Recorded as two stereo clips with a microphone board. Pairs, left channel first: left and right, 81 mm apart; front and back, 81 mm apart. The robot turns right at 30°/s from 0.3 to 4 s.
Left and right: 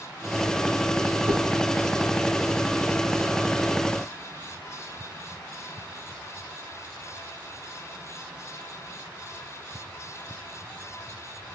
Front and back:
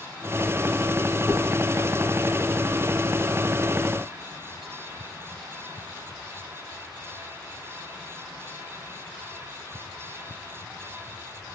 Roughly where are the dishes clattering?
Right.